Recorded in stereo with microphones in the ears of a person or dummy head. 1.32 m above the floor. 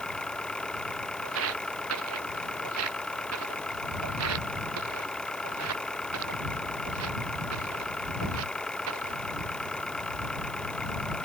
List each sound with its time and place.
0.0 s an engine running: 10° left (ahead or behind)
1.2 s footsteps: 75° right (ahead or behind); by 9.2 s 70° right (ahead or behind)